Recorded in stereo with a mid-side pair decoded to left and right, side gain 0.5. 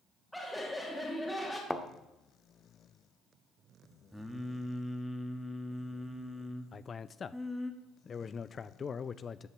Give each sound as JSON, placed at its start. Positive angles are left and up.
{"t": 0.3, "sound": "laughter", "azimuth_deg": 5, "distance_m": 2.5}
{"t": 1.7, "sound": "a thud", "azimuth_deg": 5, "distance_m": 1.3}
{"t": 4.1, "sound": "singing", "azimuth_deg": 0, "distance_m": 2.0}
{"t": 6.7, "sound": "a man speaking", "azimuth_deg": 40, "distance_m": 0.5}